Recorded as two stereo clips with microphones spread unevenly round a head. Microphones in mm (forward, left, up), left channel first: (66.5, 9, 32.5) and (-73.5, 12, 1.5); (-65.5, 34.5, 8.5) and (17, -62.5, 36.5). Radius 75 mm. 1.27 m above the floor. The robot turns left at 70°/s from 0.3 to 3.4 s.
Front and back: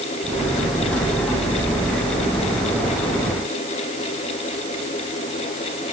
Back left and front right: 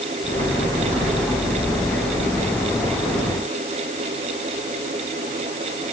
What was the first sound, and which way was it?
Only background noise.